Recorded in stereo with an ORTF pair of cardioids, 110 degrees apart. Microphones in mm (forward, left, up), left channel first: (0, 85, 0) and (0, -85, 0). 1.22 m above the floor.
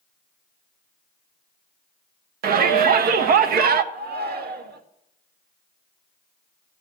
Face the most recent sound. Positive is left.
turn(degrees=-60)